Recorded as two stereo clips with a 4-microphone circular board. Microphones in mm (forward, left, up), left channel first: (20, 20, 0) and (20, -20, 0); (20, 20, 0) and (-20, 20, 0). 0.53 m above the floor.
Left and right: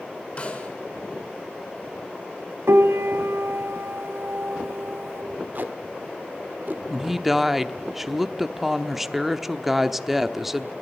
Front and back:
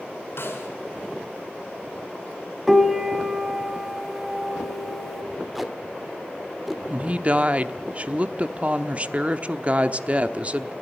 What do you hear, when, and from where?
0.4 s a snare drum: 30° left, 5.5 m
2.7 s a piano: 95° right, 1.3 m
5.5 s tape being pulled: 95° right, 1.5 m
6.9 s a woman speaking: 170° right, 1.0 m